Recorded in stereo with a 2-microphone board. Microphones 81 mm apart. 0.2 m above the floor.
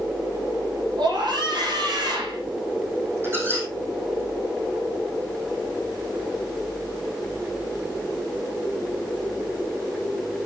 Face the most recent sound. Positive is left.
turn(degrees=-30)  # may be behind; listen again after turning